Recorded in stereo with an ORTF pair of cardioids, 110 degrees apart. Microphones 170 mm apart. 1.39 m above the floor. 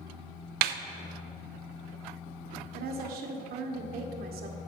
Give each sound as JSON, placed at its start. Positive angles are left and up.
{"t": 0.6, "sound": "a snare drum", "azimuth_deg": -65, "distance_m": 0.5}
{"t": 2.7, "sound": "a woman speaking", "azimuth_deg": -65, "distance_m": 1.3}